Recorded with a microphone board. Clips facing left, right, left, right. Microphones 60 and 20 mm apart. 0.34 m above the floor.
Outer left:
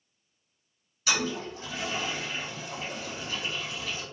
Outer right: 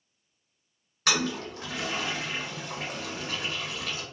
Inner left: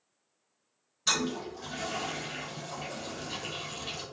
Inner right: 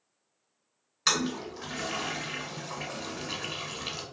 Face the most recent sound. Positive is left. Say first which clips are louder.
# outer right 1 dB, inner right 2 dB
turn(degrees=-55)  # may be behind; listen again after turning